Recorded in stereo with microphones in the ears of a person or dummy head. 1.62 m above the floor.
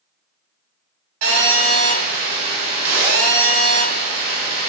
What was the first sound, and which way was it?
A phone buzzing, 40° right (ahead or behind).